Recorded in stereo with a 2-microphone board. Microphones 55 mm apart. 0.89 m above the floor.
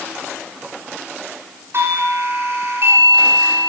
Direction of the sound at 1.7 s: 55° right (ahead or behind).